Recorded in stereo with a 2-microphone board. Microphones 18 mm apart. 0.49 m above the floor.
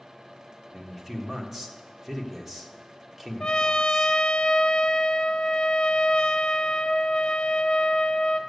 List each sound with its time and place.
0.7 s a man speaking: 25° right (ahead or behind), 1.4 m
3.4 s a trumpet: 70° left (ahead or behind), 0.7 m